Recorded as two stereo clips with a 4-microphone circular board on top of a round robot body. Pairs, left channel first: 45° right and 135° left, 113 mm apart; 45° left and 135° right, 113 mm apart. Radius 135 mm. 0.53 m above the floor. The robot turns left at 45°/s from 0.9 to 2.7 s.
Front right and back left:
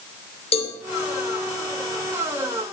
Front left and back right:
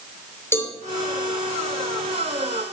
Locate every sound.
0.5 s a cowbell: 20° right, 2.5 m